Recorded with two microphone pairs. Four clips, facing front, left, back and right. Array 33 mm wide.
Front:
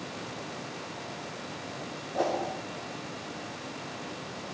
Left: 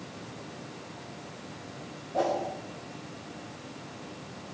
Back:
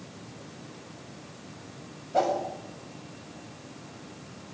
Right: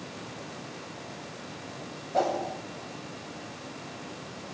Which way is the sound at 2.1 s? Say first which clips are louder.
Right 1 dB, back 4 dB; 145° right.